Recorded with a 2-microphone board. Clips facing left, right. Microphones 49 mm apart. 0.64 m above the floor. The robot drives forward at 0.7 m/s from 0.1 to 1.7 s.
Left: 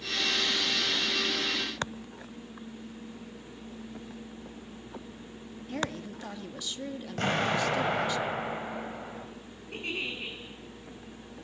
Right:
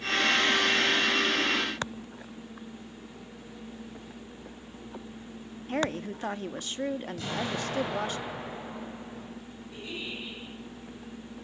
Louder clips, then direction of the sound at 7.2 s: Left 5 dB; 55° left (ahead or behind).